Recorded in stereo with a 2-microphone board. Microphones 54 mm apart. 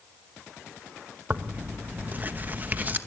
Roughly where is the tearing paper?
Right.